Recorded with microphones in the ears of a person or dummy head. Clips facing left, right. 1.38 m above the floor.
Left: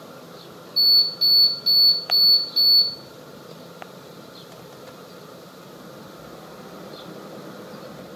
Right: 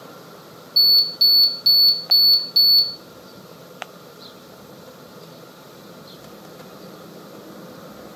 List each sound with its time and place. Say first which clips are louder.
0.8 s an alarm: right 1 dB; 45° right (ahead or behind), 1.3 m